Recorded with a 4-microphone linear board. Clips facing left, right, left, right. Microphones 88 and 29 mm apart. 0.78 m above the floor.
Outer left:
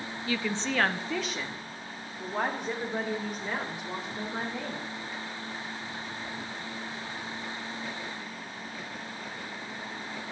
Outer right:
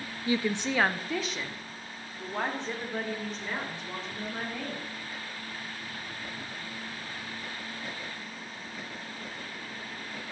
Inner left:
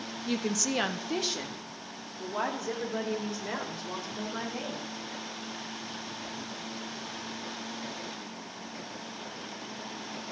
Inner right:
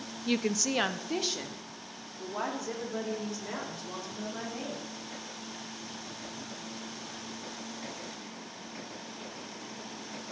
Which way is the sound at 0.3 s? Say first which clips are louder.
Outer right 3 dB, inner right 1 dB; 25° right (ahead or behind).